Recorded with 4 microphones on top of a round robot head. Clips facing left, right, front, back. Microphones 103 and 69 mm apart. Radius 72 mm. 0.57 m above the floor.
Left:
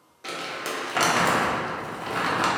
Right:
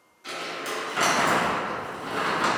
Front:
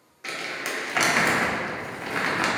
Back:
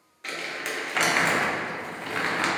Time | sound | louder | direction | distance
0.2 | crumpling | left 1 dB, front 1 dB | 80° left | 0.6 m